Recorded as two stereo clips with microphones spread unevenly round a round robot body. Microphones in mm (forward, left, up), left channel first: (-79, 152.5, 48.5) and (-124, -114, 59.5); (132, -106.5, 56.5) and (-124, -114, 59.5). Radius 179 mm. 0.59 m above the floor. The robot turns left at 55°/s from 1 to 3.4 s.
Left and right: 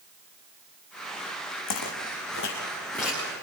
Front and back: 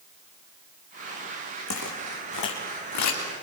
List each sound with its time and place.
1.7 s footsteps: 55° left, 2.5 m; by 3.4 s 25° right, 3.5 m